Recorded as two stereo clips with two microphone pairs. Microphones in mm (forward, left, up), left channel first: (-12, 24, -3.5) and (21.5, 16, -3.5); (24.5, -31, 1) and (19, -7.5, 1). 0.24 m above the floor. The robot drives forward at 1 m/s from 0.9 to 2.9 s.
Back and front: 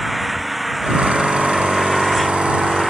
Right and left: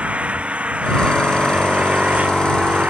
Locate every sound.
0.0 s an engine running: 70° left; by 2.9 s 80° left